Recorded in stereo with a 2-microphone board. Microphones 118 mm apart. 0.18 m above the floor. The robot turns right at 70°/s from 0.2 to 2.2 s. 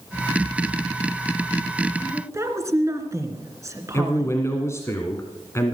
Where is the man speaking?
25° left (ahead or behind), 1.5 m.